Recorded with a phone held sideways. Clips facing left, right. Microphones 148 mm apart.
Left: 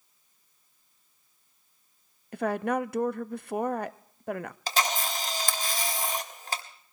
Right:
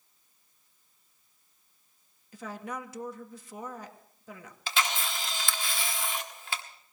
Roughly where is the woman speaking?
Left.